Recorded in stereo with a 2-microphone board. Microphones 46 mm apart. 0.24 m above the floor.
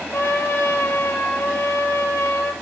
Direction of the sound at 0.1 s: 65° left (ahead or behind).